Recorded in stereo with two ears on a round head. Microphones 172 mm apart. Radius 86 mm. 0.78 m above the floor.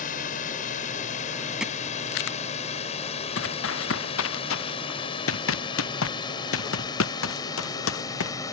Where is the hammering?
5° right (ahead or behind).